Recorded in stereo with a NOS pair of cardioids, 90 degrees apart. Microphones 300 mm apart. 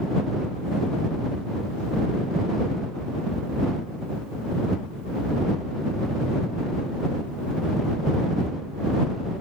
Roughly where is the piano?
No piano in this recording.